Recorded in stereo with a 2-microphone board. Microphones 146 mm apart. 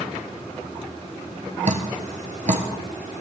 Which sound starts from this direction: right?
Dripping, at 1.6 s.